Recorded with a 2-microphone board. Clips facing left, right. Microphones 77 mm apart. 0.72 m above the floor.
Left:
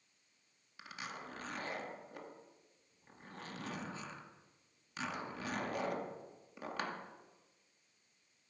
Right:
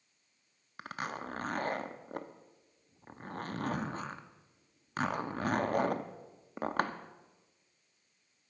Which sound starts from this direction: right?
A zipper, at 0.8 s.